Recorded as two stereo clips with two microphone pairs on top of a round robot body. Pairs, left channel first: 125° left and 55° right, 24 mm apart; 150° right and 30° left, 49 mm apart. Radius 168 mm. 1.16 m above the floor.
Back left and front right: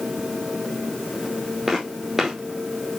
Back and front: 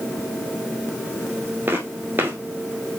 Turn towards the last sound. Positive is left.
turn(degrees=50)